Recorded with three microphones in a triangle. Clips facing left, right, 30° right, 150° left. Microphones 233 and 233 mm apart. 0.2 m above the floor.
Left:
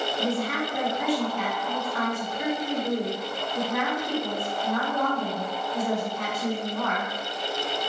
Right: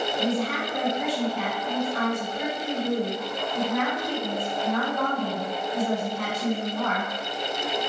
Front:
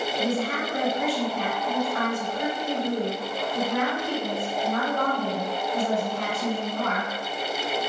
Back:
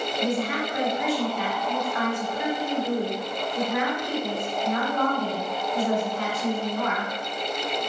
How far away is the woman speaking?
About 1.9 m.